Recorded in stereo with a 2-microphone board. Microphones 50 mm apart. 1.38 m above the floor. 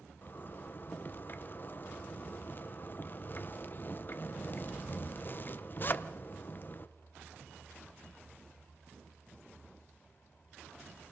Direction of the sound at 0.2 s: 40° left (ahead or behind).